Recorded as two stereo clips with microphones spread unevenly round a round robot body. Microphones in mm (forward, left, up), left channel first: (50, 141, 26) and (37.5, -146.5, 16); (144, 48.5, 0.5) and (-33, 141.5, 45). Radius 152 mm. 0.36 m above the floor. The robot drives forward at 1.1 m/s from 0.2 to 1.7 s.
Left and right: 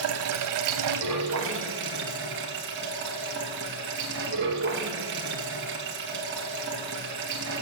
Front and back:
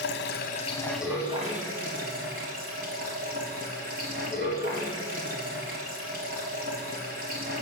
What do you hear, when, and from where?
0.0 s running water: 60° right, 1.0 m; by 7.6 s 145° right, 1.4 m